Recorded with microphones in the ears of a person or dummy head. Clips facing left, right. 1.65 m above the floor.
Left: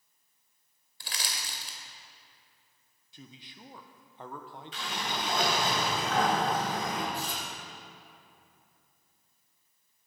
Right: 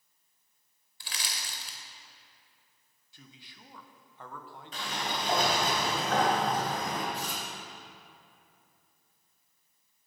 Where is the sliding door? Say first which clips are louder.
Right 1 dB; 45° right (ahead or behind), 2.5 m.